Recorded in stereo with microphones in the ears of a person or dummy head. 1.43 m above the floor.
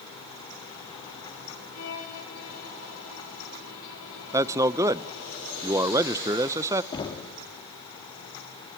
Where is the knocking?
25° left (ahead or behind), 2.0 m.